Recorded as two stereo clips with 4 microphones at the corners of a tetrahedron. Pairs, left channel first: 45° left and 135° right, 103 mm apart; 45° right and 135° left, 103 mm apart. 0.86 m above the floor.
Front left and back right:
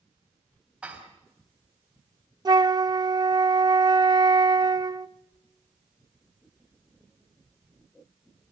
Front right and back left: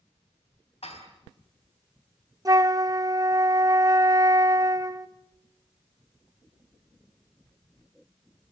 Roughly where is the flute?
Behind.